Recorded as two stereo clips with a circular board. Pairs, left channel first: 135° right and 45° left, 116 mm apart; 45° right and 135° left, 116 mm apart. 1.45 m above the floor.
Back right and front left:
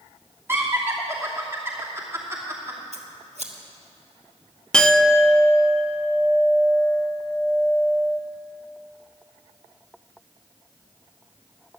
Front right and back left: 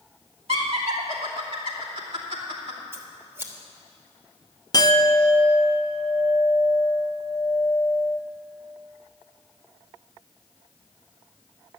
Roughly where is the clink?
Ahead right.